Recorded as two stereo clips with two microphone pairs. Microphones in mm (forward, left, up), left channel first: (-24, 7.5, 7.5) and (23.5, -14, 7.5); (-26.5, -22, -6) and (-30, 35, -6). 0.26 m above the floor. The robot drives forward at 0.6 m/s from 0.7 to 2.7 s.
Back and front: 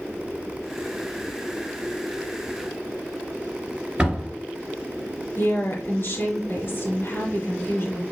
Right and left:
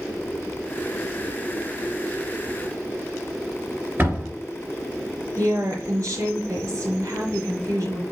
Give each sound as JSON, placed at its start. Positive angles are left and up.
{"t": 4.0, "sound": "a door slam", "azimuth_deg": 45, "distance_m": 3.0}
{"t": 5.4, "sound": "a woman speaking", "azimuth_deg": 110, "distance_m": 4.0}